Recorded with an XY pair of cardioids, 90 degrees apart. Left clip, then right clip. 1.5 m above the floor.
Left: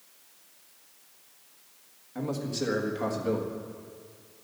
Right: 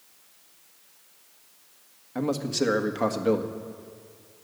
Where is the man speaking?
55° right, 1.7 m.